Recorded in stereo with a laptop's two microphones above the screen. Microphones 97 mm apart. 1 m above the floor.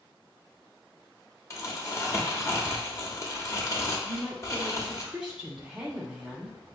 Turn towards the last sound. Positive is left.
turn(degrees=-10)  # may be behind; listen again after turning